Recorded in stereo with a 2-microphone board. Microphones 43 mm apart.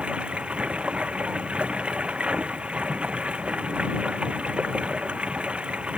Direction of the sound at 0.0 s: 25° right (ahead or behind).